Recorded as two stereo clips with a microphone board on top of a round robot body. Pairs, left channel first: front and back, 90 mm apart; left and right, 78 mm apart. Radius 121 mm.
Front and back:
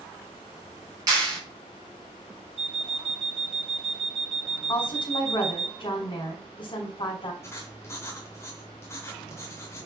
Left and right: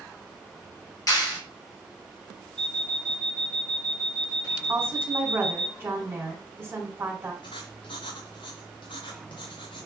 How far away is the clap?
About 4.5 m.